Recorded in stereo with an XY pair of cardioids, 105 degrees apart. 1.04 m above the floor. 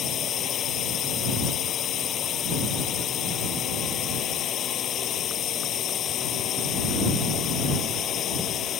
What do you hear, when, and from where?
0.0 s a drone: 60° left